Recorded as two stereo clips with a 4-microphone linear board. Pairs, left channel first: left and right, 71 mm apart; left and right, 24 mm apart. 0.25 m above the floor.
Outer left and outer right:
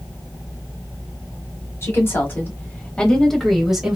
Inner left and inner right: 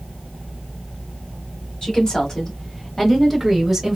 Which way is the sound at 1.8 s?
35° left (ahead or behind).